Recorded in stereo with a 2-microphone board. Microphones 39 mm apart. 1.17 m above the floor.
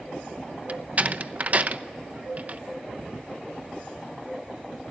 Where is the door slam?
40° right (ahead or behind), 0.8 m.